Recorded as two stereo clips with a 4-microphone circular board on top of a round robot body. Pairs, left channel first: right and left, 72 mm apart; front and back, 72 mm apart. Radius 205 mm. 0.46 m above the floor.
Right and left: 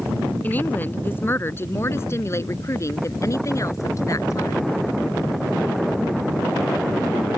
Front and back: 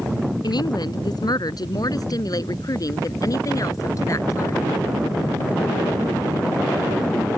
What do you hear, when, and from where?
0.4 s a woman speaking: 20° right; by 4.8 s 45° right